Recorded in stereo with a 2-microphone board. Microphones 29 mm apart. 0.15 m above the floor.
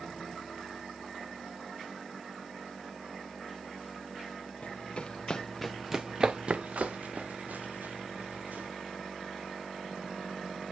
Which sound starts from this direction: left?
Running footsteps, at 4.6 s.